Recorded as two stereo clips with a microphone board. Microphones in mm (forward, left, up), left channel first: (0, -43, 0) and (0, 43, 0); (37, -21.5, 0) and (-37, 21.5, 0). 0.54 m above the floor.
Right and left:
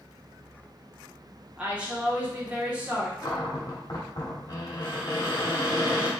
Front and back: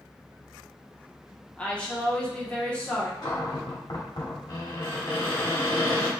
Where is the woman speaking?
30° left, 0.9 m.